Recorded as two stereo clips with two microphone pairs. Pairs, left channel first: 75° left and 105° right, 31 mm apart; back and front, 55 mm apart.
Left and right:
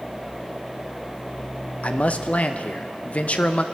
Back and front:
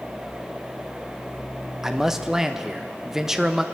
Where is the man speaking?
80° left, 0.6 m.